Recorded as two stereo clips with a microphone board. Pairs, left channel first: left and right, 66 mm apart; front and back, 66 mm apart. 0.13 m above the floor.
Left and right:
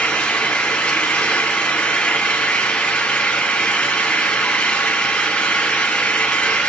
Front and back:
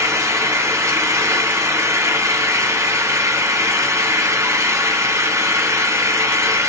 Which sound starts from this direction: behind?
An engine running, at 0.0 s.